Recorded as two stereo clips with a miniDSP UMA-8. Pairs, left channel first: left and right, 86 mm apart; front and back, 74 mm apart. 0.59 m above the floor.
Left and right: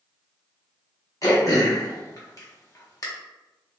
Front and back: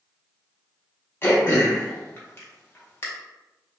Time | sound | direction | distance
1.2 | throat clearing | 50° left | 0.7 m